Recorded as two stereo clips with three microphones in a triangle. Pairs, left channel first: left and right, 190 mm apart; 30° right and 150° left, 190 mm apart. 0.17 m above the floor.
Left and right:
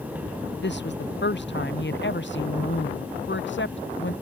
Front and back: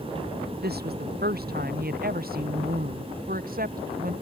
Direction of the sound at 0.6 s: 115° left.